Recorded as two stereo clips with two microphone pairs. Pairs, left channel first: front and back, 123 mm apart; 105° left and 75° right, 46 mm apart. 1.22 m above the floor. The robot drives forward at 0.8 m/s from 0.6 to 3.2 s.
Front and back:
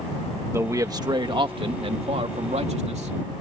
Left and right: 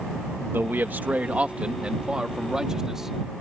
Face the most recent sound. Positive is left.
turn(degrees=-155)